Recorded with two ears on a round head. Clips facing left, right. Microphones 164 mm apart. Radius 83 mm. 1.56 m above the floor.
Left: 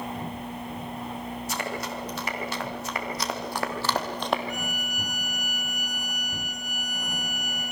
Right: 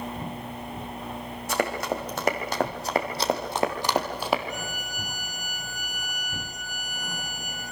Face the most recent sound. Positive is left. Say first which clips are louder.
# left 2 dB
turn(degrees=-25)  # may be behind; listen again after turning